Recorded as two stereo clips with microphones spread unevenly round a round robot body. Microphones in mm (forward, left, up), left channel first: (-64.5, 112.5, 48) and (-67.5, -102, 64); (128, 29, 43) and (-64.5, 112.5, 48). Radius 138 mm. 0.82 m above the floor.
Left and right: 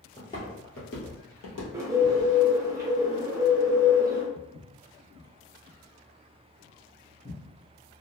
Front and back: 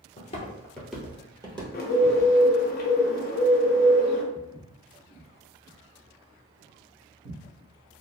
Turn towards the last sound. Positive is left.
turn(degrees=175)